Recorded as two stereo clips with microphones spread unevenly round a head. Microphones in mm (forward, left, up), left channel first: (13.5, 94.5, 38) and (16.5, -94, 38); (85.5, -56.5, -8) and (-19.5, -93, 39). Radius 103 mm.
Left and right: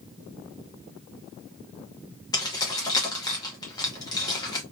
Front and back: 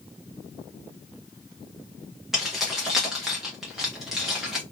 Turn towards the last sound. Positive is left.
turn(degrees=150)